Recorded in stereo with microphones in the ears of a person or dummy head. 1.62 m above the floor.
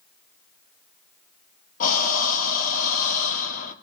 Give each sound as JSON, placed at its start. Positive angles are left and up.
{"t": 1.8, "sound": "breathing", "side_deg": 50, "distance_m": 1.1}